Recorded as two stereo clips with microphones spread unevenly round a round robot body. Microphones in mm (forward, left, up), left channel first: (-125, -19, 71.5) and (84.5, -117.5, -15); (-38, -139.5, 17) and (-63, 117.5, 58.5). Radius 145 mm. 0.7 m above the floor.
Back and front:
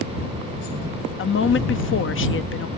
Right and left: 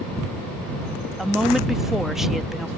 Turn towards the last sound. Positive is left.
turn(degrees=-165)